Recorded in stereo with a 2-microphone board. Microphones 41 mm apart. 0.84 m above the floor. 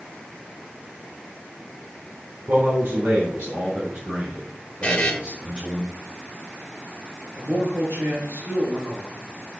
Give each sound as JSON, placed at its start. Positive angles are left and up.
{"t": 2.5, "sound": "a man speaking", "side_deg": -70, "distance_m": 3.0}
{"t": 4.8, "sound": "a buzzer", "side_deg": 30, "distance_m": 1.5}
{"t": 7.3, "sound": "a man speaking", "side_deg": -80, "distance_m": 3.0}